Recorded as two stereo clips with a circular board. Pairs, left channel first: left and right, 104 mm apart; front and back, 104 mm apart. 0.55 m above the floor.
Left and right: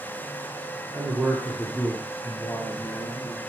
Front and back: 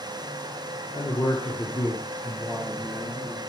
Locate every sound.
0.9 s a man speaking: 30° right, 0.9 m; by 3.4 s 90° left, 1.3 m